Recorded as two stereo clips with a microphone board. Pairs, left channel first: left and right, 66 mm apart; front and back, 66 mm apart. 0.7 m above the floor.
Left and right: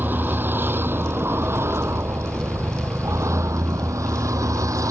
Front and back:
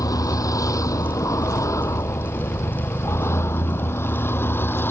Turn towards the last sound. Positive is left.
turn(degrees=-55)